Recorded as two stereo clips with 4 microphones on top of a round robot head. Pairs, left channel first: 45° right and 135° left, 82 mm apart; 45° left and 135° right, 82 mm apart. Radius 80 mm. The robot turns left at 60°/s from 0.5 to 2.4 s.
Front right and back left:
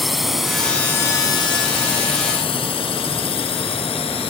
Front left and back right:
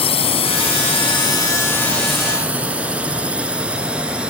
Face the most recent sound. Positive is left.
turn(degrees=-55)